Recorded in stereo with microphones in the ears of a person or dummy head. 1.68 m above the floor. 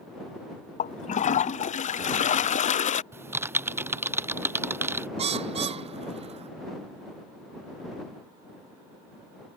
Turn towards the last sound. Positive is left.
turn(degrees=-25)  # may be behind; listen again after turning